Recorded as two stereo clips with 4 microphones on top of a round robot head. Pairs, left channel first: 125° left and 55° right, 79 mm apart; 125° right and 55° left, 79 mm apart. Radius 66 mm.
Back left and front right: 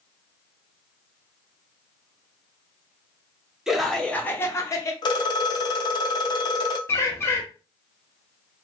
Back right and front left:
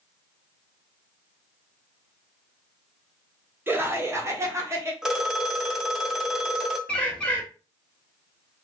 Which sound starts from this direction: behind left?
A phone ringing, at 5.0 s.